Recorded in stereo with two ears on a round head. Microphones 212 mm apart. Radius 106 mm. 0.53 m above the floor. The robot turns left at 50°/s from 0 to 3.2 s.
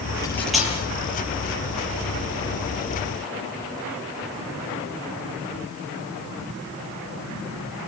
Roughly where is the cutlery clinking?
Centre.